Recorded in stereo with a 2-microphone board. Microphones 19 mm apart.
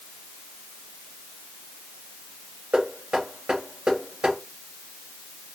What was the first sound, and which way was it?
Knocking, 65° right (ahead or behind).